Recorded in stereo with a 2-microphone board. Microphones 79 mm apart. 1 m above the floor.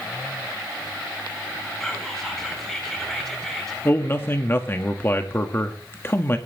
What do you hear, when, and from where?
1.8 s whispering: 5° left (ahead or behind), 7.5 m
3.9 s a man speaking: 30° left (ahead or behind), 1.8 m